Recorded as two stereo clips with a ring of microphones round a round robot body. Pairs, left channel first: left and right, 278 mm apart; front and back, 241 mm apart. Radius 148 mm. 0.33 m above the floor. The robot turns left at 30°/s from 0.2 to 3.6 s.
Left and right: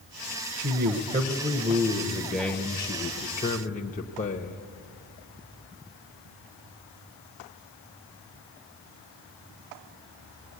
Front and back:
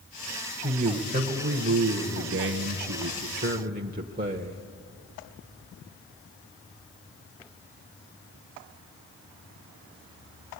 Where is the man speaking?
130° right, 1.2 m; by 4.7 s 140° left, 1.2 m.